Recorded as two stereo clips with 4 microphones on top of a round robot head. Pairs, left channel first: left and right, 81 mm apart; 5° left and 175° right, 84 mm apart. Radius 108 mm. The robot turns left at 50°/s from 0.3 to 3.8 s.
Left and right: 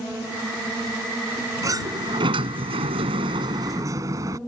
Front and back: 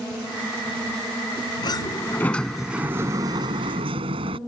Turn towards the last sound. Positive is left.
turn(degrees=-150)